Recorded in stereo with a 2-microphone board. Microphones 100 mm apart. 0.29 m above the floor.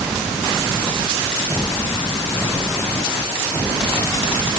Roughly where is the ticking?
No ticking in this recording.